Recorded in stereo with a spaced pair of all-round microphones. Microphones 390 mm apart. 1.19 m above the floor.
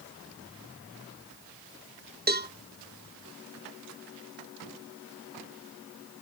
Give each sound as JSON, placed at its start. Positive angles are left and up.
{"t": 2.3, "sound": "a cowbell", "side_deg": -25, "distance_m": 0.9}